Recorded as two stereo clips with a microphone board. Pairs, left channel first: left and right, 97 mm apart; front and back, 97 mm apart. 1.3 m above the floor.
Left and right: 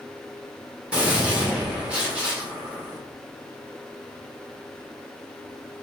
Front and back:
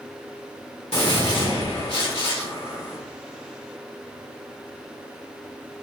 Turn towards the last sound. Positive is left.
turn(degrees=-15)